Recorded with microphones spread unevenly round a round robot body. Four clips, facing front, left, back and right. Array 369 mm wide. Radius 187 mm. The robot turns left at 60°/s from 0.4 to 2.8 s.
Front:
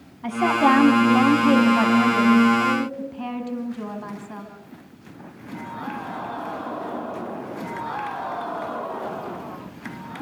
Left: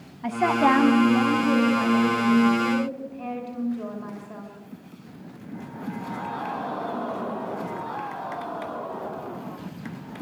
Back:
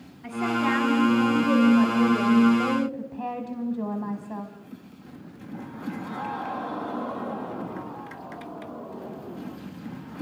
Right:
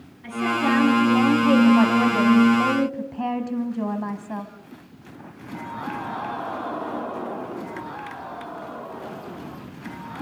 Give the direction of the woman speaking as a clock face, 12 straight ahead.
10 o'clock.